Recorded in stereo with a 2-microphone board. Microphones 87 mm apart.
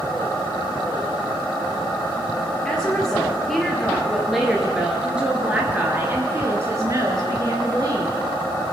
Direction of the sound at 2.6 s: 10° left (ahead or behind).